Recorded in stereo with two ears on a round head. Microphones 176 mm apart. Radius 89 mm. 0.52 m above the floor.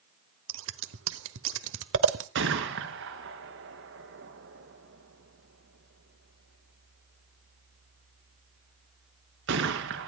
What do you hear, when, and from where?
0.5 s scissors: 70° right (ahead or behind), 1.2 m
2.4 s a gunshot: 70° right (ahead or behind), 2.5 m